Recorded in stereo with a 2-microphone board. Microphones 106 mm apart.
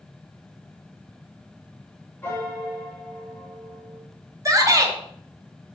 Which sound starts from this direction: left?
A piano, at 2.2 s.